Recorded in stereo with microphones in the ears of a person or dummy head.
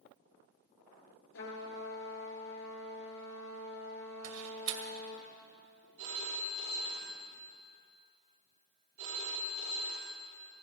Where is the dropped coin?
No dropped coin in this recording.